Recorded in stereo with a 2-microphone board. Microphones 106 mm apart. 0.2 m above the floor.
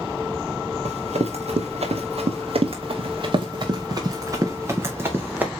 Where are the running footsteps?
85° right, 2.5 m; by 5.5 s 15° right (ahead or behind), 2.5 m.